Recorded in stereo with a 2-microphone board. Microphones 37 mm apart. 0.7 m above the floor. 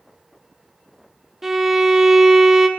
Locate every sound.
1.4 s a violin: 10° right (ahead or behind), 0.7 m